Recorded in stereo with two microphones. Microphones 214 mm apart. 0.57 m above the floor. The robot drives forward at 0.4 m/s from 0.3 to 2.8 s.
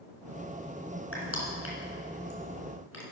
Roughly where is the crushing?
Left.